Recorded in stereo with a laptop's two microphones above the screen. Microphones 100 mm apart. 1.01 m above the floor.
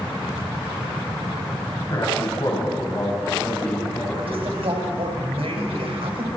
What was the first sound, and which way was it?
A man speaking, 50° left (ahead or behind).